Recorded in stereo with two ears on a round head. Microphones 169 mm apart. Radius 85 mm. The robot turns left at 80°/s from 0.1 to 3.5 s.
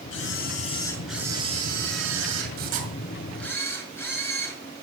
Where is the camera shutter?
80° left, 5 m; by 4.8 s 165° left, 5 m.